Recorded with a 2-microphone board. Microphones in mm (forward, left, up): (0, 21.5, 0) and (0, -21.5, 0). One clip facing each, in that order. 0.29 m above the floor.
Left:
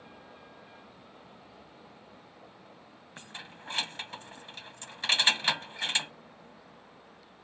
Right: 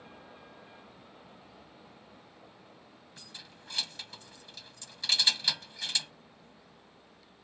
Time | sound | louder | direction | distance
0.0 | a vehicle | even | centre (ahead or behind) | ?
3.2 | keys jangling | left 7 dB | 40° left (ahead or behind) | ?